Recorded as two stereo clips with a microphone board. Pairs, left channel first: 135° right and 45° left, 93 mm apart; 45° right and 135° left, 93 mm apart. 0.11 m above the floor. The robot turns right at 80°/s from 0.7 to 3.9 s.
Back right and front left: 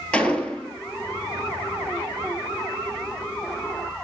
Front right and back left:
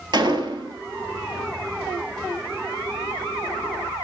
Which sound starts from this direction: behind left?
A gunshot, at 0.1 s.